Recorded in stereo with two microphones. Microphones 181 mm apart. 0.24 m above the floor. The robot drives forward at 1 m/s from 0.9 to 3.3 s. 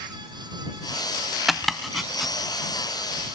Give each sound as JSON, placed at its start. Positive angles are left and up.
{"t": 1.5, "sound": "chopping", "side_deg": 0}